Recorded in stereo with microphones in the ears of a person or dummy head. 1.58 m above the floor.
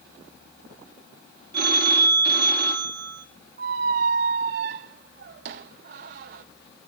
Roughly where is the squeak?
Right.